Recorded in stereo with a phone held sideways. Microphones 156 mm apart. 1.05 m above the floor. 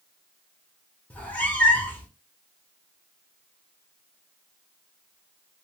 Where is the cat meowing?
10° left (ahead or behind), 0.7 m.